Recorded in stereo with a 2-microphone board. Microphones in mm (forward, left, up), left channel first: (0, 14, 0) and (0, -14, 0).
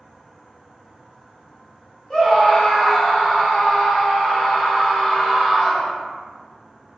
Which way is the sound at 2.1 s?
25° left (ahead or behind).